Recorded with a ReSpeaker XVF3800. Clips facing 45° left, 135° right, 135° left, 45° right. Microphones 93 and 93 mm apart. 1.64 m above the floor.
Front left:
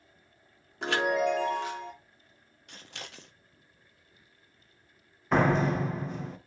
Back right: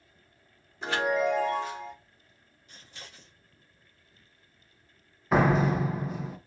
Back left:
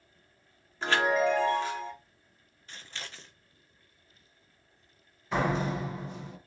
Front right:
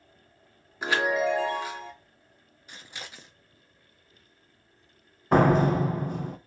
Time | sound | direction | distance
0.8 | a chime | 35° left | 1.2 m
2.7 | scissors | 30° left | 0.6 m
5.3 | a door slam | 50° right | 0.6 m